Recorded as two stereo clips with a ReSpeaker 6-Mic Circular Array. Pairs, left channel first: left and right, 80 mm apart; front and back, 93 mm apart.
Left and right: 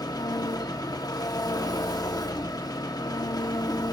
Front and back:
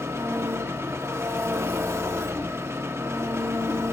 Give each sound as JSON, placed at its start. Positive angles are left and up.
{"t": 0.0, "sound": "an engine running", "azimuth_deg": 120, "distance_m": 1.2}